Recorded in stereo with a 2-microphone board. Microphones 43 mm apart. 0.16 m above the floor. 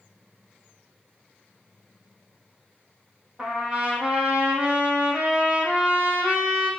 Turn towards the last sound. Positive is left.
turn(degrees=-25)  # may be behind; listen again after turning